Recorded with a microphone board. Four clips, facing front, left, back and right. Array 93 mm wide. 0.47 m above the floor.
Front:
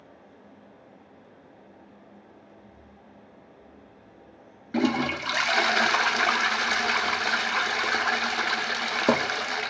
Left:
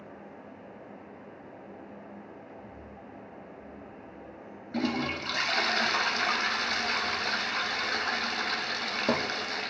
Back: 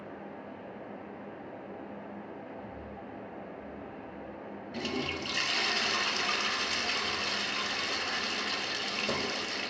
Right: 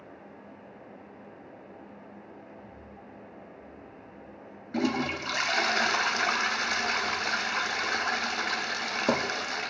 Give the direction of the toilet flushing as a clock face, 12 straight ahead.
12 o'clock.